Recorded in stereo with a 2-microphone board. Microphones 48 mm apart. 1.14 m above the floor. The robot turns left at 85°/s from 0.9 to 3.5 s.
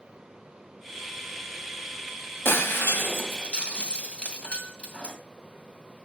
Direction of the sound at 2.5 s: 55° left (ahead or behind).